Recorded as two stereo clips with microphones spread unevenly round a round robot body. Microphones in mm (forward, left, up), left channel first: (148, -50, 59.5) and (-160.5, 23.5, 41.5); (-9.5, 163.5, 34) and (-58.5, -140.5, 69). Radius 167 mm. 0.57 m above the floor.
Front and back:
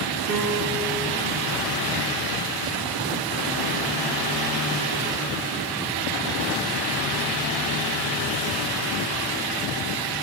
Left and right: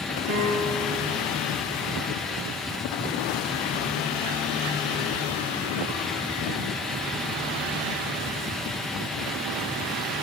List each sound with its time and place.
0.3 s a piano: 150° right, 4.5 m